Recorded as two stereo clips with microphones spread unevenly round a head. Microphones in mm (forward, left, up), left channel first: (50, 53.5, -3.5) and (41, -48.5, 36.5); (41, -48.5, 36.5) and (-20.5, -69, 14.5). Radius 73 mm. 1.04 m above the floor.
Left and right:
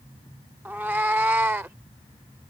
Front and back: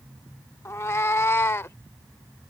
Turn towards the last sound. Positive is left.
turn(degrees=-30)